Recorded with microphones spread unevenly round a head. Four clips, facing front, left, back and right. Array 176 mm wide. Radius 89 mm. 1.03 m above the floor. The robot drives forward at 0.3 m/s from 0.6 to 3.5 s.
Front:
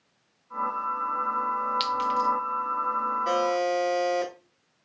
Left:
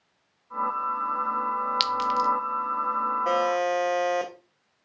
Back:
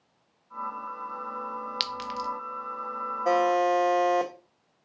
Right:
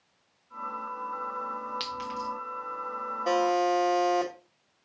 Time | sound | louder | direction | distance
1.8 | a clink | left 10 dB, front 10 dB | 105° left | 0.5 m
3.2 | a buzzer | right 2 dB, back 5 dB | 170° left | 0.9 m